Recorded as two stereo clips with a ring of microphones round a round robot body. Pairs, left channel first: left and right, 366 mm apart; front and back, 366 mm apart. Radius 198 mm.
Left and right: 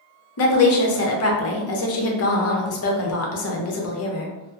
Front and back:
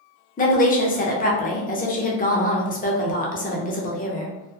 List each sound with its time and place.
0.4 s a woman speaking: 60° left, 0.7 m